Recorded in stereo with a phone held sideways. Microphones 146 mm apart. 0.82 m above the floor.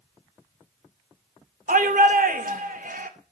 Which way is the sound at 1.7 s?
75° right (ahead or behind).